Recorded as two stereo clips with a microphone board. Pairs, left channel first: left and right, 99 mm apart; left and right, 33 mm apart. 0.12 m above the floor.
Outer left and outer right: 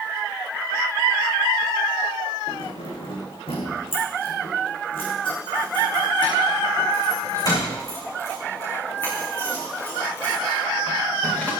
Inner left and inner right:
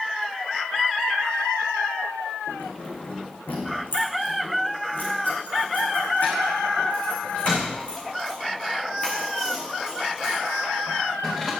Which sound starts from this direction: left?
Keys jangling, at 2.5 s.